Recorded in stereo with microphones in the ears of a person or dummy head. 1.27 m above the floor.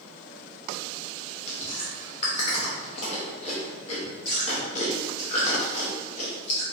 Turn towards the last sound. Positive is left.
turn(degrees=40)  # may be behind; listen again after turning